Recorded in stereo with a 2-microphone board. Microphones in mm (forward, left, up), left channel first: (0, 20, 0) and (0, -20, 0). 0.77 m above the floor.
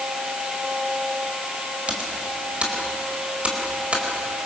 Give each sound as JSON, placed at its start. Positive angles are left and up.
{"t": 1.9, "sound": "typing on a keyboard", "side_deg": -30, "distance_m": 4.0}